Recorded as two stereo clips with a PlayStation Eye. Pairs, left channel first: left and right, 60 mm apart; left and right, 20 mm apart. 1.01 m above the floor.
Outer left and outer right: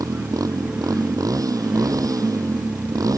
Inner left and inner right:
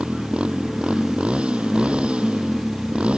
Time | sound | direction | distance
0.0 | a motorcycle | 85° right | ?